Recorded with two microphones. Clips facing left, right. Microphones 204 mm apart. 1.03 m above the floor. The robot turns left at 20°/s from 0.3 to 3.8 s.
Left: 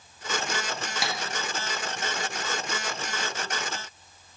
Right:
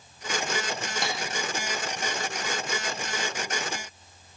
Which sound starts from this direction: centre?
Tapping, at 1.0 s.